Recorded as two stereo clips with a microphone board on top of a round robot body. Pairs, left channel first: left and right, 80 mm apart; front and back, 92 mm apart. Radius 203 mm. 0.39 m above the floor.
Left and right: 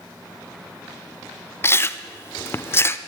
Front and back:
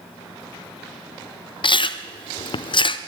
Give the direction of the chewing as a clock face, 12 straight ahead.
11 o'clock.